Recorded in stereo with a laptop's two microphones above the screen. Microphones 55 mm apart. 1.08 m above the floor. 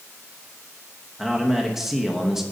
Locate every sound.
1.2 s a man speaking: 5° right (ahead or behind), 0.9 m